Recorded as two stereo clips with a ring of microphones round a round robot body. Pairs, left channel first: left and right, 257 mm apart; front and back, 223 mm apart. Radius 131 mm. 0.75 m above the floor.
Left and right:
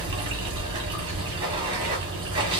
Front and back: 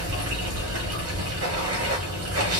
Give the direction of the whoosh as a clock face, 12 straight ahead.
No whoosh in this recording.